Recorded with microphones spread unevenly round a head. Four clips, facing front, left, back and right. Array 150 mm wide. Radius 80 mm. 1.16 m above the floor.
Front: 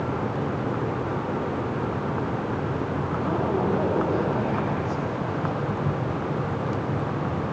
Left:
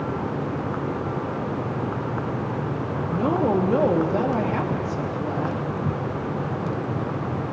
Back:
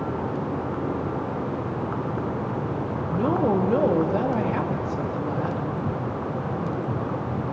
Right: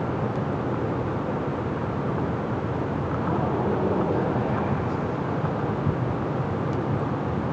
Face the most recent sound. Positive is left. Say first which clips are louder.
# left 7 dB, back 5 dB
turn(degrees=140)